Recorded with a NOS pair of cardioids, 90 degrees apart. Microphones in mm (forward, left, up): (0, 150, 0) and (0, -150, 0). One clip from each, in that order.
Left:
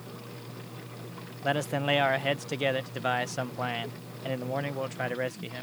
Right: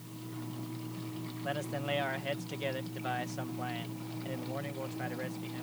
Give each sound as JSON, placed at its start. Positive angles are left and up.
{"t": 1.4, "sound": "a man speaking", "azimuth_deg": 60}